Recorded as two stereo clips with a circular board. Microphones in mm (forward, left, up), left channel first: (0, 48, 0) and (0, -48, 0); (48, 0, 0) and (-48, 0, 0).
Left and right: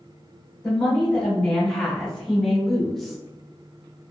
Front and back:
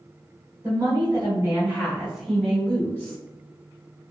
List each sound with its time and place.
0.6 s a woman speaking: 170° left, 1.4 m; by 3.2 s straight ahead, 1.1 m